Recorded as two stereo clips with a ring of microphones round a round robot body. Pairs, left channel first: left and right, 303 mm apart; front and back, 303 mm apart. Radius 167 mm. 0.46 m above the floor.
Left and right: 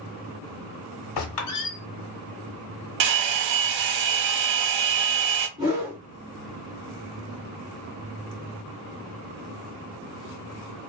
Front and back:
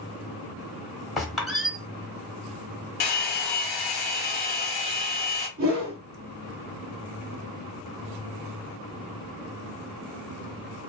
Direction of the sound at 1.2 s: 90° left.